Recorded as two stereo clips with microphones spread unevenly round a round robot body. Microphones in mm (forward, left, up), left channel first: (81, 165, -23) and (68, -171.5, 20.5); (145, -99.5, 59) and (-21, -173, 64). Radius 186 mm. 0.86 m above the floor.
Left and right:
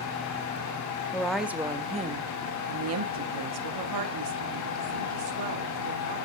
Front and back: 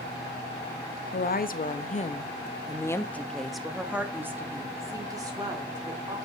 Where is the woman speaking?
10° left, 1.6 m; by 6.2 s 90° right, 3.5 m.